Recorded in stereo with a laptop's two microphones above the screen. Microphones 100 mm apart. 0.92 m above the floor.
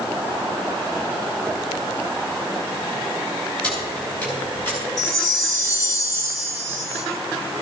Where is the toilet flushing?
I don't hear a toilet flushing.